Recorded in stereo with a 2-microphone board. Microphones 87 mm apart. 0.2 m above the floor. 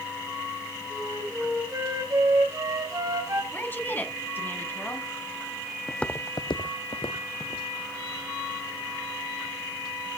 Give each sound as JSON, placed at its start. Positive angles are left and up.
{"t": 0.9, "sound": "a flute", "side_deg": -40, "distance_m": 3.0}
{"t": 3.5, "sound": "a woman speaking", "side_deg": 25, "distance_m": 1.6}
{"t": 5.9, "sound": "footsteps", "side_deg": 0, "distance_m": 0.7}